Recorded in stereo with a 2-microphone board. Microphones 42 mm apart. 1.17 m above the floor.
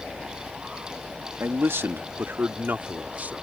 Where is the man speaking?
80° right; by 3.3 s 40° right (ahead or behind).